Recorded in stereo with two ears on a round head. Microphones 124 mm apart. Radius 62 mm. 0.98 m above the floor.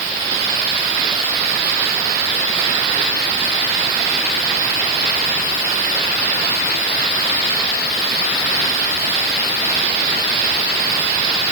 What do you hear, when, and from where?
Only background noise.